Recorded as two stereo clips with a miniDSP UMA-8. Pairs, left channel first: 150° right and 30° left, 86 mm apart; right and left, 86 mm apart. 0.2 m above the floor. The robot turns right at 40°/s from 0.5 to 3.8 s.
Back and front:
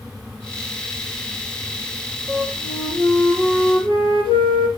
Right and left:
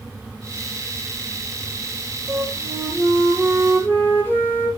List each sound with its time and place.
2.3 s a flute: 145° left, 5.5 m; by 4.7 s 155° right, 5.5 m